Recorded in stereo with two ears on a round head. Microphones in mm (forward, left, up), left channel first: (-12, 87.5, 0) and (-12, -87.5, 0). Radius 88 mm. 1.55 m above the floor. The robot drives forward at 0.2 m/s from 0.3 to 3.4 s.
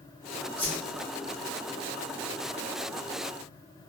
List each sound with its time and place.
0.6 s a whoosh: 10° left (ahead or behind), 0.6 m